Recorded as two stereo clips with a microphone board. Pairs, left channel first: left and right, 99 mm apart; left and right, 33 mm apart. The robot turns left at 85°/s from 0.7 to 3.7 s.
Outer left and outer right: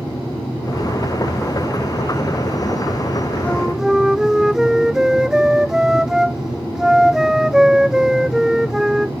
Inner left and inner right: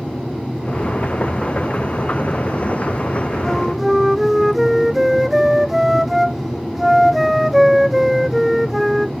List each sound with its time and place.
3.4 s a flute: 15° left (ahead or behind); by 9.1 s 5° right (ahead or behind)